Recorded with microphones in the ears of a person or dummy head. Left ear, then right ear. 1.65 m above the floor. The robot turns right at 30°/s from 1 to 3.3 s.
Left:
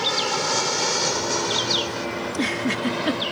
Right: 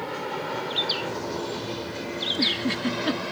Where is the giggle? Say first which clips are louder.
Right 3 dB; 35° left (ahead or behind); by 3.2 s 5° left (ahead or behind).